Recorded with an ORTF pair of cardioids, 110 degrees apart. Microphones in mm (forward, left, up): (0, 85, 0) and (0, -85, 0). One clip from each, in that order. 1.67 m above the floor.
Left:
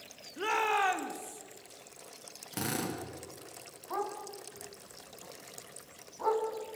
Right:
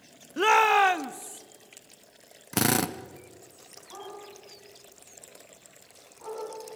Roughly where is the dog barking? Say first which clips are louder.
Left 6 dB; ahead left.